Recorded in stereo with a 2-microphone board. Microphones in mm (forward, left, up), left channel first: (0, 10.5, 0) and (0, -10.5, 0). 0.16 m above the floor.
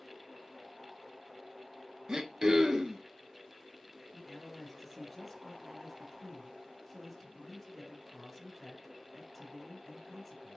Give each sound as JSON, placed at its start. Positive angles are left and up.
{"t": 2.1, "sound": "throat clearing", "side_deg": -40, "distance_m": 0.9}
{"t": 4.1, "sound": "a man speaking", "side_deg": 0, "distance_m": 2.5}